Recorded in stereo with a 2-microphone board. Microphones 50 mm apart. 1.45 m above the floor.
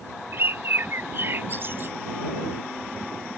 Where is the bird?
50° right (ahead or behind).